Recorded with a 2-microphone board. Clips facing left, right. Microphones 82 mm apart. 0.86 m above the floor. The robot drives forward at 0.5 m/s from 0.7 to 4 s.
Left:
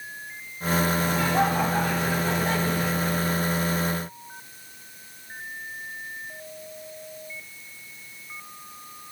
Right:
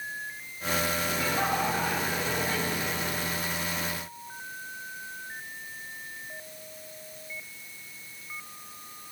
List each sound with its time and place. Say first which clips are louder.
1.0 s laughter: left 6 dB; 60° left (ahead or behind), 8 m; by 3.2 s 65° left (ahead or behind), 7.5 m